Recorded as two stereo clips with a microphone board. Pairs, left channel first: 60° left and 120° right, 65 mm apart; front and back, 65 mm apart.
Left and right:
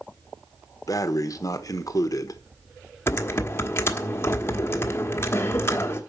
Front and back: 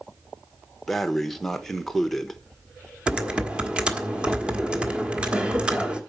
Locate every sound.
0.9 s breathing: 85° left, 1.0 m
3.1 s typing on a keyboard: 110° left, 1.5 m